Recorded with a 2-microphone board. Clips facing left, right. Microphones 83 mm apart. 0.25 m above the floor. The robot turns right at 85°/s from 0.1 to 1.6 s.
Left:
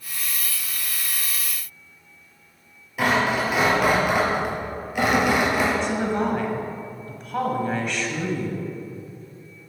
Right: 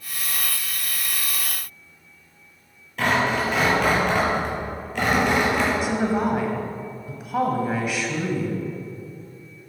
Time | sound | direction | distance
3.0 | tearing paper | 10° left (ahead or behind) | 3 m
5.8 | a woman speaking | 10° right (ahead or behind) | 1.2 m